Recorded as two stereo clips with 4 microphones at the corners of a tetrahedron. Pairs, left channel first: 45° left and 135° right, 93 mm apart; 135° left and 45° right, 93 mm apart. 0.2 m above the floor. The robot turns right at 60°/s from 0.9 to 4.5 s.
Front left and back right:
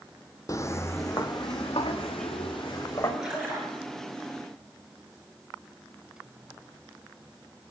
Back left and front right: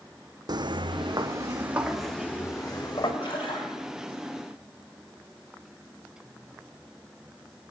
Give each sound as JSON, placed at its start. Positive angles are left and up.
{"t": 0.5, "sound": "footsteps", "azimuth_deg": -5, "distance_m": 0.5}
{"t": 3.2, "sound": "a splash", "azimuth_deg": 140, "distance_m": 3.5}